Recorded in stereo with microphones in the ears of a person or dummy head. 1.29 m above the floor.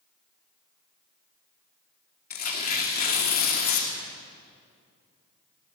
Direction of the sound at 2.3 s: 50° left (ahead or behind).